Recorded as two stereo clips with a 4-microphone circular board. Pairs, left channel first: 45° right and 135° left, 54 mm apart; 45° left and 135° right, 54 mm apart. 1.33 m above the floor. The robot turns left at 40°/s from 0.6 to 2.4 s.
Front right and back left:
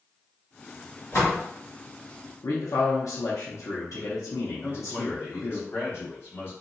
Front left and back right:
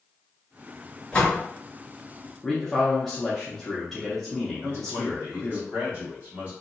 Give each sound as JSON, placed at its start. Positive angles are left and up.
{"t": 1.1, "sound": "a door slam", "azimuth_deg": -25, "distance_m": 1.5}
{"t": 2.4, "sound": "a man speaking", "azimuth_deg": -40, "distance_m": 0.7}
{"t": 4.6, "sound": "a man speaking", "azimuth_deg": -85, "distance_m": 1.6}